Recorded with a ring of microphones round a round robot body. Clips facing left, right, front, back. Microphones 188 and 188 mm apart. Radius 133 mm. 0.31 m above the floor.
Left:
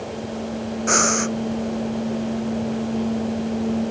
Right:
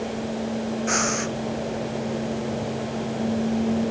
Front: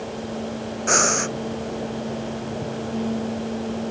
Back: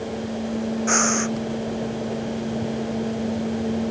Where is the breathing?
55° left.